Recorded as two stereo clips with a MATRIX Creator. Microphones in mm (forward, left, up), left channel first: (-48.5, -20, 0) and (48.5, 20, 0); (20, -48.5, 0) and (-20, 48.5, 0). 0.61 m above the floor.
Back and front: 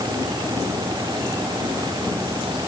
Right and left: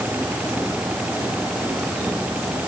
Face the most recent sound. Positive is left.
No sound to turn to.